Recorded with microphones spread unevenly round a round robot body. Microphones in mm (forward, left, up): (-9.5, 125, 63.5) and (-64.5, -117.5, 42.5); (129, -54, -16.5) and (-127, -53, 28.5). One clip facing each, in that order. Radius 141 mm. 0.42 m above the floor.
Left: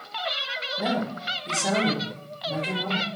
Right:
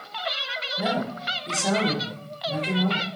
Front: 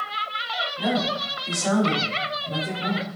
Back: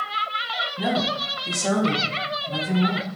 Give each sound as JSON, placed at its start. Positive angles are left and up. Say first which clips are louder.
{"t": 0.8, "sound": "a woman speaking", "louder": "even, even", "azimuth_deg": 175, "distance_m": 1.2}